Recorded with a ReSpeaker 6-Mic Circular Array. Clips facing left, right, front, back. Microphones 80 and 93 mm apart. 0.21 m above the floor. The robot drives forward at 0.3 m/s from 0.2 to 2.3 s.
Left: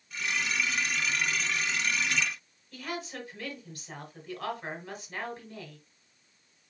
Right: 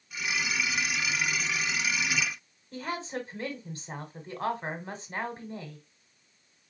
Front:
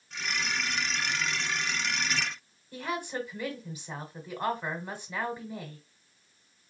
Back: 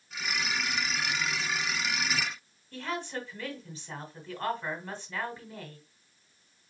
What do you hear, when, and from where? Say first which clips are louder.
2.7 s a woman speaking: right 3 dB, front 2 dB; 65° right, 1.2 m